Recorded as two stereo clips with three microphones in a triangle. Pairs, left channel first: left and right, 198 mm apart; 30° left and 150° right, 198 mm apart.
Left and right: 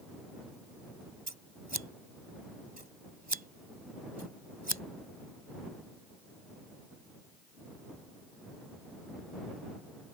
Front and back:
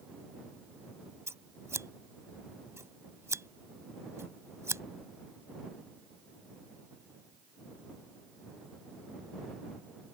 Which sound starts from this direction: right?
Scissors, at 1.3 s.